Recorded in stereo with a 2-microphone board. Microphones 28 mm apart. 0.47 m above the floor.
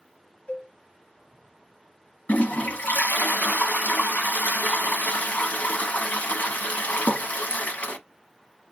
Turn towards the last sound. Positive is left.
turn(degrees=75)  # may be behind; listen again after turning